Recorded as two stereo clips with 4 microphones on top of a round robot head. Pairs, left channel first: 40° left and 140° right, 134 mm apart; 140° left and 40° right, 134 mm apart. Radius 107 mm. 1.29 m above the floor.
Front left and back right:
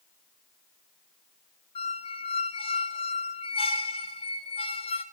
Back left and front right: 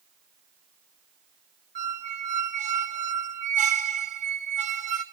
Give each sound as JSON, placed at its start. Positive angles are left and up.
{"t": 1.8, "sound": "a squeak", "azimuth_deg": -10, "distance_m": 2.0}